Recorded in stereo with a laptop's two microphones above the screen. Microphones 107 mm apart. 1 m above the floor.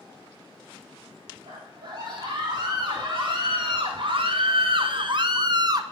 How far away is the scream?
About 3.5 m.